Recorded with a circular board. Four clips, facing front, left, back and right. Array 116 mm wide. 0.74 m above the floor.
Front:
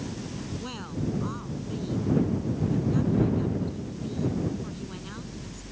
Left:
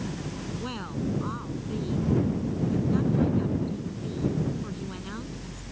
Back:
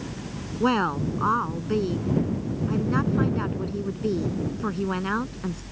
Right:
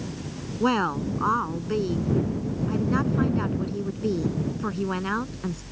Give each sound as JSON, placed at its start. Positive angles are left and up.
{"t": 0.6, "sound": "a woman speaking", "azimuth_deg": -140}